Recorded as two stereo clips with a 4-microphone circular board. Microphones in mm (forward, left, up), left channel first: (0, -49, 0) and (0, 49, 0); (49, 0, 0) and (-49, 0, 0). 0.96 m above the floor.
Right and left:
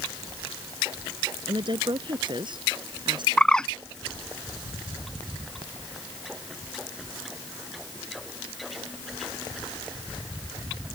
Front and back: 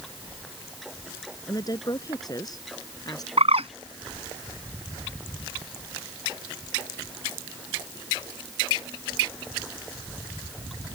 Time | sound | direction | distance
1.5 | a woman speaking | 50° left | ?
3.4 | a bird | 170° right | ?